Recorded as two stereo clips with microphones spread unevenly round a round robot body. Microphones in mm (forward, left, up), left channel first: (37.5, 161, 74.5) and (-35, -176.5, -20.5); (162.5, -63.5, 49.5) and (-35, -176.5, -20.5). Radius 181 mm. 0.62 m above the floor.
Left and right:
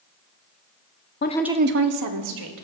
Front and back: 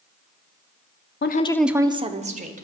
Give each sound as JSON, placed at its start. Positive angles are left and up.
{"t": 1.2, "sound": "a woman speaking", "azimuth_deg": 20, "distance_m": 0.7}